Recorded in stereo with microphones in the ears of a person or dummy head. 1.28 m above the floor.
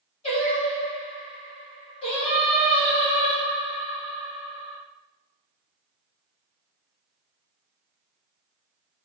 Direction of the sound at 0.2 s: 35° left (ahead or behind).